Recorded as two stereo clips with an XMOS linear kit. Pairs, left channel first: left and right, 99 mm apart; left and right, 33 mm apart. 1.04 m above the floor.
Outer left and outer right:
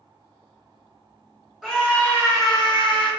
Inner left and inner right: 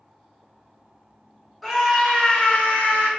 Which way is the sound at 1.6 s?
5° left (ahead or behind).